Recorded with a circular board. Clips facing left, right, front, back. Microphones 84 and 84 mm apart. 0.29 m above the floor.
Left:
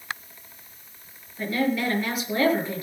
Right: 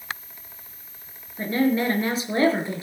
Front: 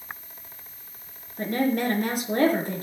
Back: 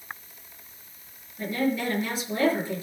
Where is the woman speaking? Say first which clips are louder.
Right 3 dB, front 2 dB; 30° right, 5.5 m.